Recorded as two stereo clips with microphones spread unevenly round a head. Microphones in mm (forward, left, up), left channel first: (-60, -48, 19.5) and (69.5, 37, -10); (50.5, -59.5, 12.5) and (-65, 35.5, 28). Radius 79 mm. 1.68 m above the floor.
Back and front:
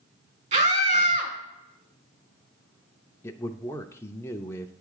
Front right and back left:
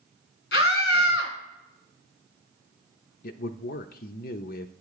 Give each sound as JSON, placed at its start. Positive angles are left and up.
{"t": 0.5, "sound": "a scream", "azimuth_deg": -15, "distance_m": 2.0}
{"t": 3.2, "sound": "a man speaking", "azimuth_deg": -70, "distance_m": 0.5}